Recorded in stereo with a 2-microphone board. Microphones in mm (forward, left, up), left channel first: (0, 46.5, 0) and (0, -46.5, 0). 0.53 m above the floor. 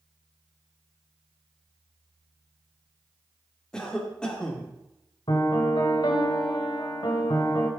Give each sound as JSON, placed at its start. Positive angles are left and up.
{"t": 3.7, "sound": "a cough", "side_deg": 10, "distance_m": 1.3}
{"t": 5.3, "sound": "a piano", "side_deg": 60, "distance_m": 1.5}